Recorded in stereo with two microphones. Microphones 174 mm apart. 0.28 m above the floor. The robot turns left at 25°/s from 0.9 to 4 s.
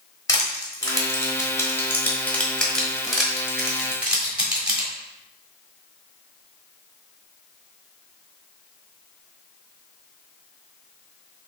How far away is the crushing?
About 1.1 m.